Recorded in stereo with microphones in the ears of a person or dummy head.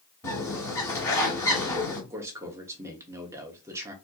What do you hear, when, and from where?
0.2 s a bird: 20° left (ahead or behind), 2.0 m
2.1 s a man speaking: 15° right (ahead or behind), 0.9 m